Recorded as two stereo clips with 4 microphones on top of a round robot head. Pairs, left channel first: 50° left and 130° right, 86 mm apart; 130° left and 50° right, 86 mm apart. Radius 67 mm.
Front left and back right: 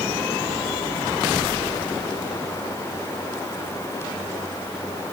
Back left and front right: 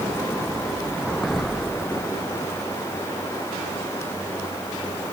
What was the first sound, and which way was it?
Only background noise.